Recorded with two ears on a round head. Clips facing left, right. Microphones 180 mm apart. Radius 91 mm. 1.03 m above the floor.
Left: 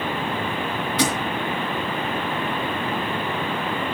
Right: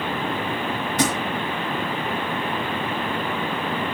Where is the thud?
45° right (ahead or behind), 2.5 m.